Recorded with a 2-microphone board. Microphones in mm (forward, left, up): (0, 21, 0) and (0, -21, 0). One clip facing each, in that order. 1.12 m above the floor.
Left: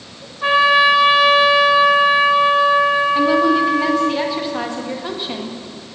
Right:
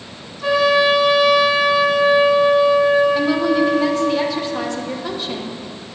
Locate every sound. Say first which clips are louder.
0.4 s a trumpet: left 2 dB; 40° left (ahead or behind), 2 m
3.1 s a woman speaking: left 2 dB; 15° left (ahead or behind), 1.0 m